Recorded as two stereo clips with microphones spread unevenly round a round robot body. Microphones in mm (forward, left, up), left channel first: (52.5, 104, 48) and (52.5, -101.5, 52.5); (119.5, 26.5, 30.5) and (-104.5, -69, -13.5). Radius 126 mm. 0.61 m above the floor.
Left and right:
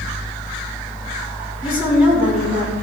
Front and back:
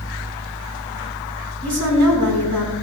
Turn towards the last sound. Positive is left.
turn(degrees=-175)